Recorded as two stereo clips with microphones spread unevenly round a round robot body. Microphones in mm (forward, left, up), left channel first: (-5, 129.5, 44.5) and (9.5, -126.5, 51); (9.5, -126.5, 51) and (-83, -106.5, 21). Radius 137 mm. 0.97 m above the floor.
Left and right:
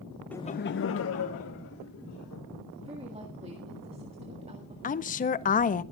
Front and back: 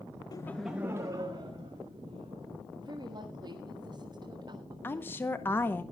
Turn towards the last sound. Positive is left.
turn(degrees=70)